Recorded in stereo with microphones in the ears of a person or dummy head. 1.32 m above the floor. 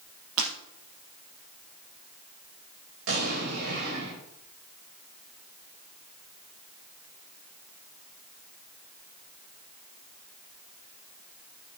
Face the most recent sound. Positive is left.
turn(degrees=-80)